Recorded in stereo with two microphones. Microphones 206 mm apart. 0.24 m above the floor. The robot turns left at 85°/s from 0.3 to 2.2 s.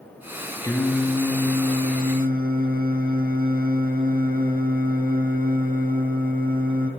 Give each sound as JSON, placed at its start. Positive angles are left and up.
{"t": 0.6, "sound": "singing", "azimuth_deg": 25, "distance_m": 0.8}